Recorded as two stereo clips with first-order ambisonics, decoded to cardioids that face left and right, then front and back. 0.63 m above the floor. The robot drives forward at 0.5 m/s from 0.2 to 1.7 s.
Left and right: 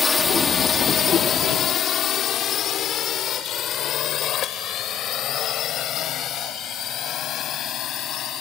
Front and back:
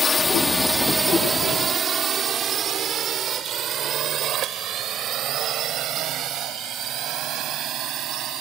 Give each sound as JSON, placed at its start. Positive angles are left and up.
{"t": 0.0, "sound": "a drone", "azimuth_deg": 45}